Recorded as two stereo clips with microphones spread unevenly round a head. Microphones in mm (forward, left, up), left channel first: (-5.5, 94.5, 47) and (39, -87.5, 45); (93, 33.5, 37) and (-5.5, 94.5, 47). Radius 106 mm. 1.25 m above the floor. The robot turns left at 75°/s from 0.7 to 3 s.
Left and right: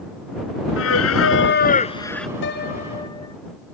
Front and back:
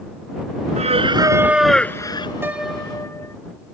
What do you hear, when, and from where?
0.8 s singing: 130° left; by 2.3 s 15° left
2.4 s a piano: 80° left; by 3.4 s 35° left